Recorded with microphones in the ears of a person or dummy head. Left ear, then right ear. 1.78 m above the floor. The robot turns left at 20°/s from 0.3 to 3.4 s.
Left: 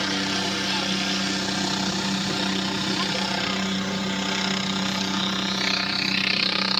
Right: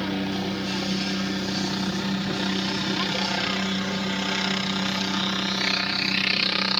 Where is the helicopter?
65° left; by 6.8 s straight ahead.